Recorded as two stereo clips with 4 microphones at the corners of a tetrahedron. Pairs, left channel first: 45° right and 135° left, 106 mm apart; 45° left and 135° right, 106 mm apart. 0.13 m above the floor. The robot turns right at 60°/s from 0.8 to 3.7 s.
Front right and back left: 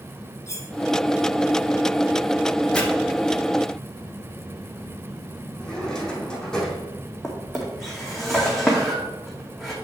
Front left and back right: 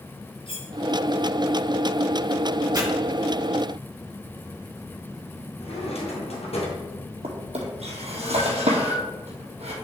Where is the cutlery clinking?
15° left, 1.9 m.